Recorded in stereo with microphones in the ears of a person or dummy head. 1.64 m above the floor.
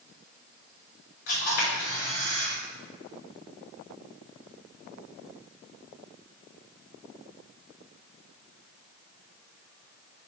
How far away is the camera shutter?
About 4.5 m.